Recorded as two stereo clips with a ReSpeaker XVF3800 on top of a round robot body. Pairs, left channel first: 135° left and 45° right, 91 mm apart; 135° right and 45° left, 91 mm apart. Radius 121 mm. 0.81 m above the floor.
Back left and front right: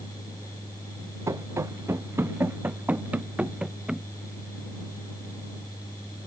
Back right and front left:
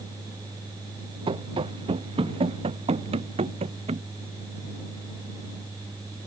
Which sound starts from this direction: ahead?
Running footsteps, at 1.3 s.